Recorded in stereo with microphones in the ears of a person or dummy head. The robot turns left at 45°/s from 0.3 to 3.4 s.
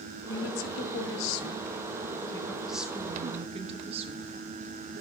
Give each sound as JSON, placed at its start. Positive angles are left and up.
{"t": 0.3, "sound": "a woman speaking", "azimuth_deg": 110, "distance_m": 0.9}